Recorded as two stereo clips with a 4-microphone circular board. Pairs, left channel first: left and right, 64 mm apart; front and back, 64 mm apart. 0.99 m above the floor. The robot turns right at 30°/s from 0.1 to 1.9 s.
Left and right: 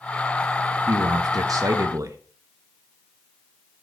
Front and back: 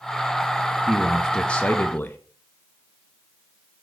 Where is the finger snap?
No finger snap in this recording.